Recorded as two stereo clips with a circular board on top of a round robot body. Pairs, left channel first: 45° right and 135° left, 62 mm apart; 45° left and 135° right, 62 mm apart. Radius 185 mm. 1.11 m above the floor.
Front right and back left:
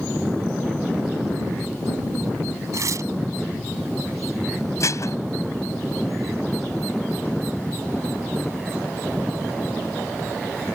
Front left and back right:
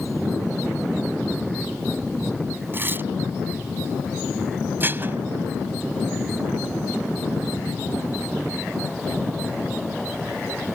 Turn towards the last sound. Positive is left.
turn(degrees=-80)